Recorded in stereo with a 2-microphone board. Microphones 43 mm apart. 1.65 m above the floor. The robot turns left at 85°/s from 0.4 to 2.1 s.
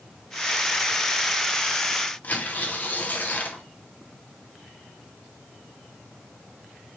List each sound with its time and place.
2.2 s tearing paper: 40° left (ahead or behind), 0.7 m